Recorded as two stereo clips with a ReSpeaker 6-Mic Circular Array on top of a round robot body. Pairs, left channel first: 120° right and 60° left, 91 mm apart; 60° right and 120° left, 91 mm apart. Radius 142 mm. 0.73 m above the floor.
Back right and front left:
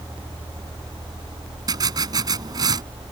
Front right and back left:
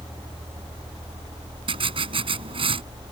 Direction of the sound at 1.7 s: 105° left.